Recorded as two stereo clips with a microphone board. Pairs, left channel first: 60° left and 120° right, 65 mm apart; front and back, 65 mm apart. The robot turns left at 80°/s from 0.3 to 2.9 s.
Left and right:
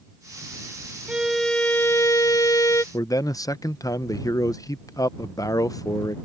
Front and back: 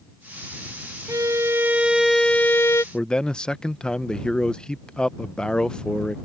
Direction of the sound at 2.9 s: 75° left.